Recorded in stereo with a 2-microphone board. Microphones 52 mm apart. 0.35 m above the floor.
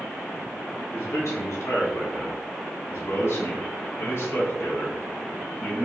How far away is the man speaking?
About 4 m.